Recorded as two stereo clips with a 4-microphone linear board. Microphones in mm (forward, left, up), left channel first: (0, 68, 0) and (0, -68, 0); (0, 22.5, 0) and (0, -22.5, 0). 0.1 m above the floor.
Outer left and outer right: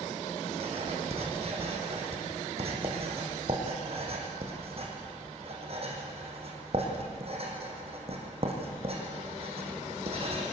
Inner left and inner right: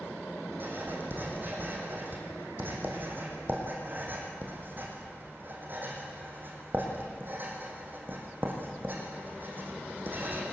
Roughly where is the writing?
Right.